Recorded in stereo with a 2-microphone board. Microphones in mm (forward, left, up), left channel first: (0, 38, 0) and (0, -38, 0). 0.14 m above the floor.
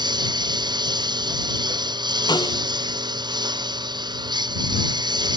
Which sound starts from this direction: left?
A snare drum, at 2.3 s.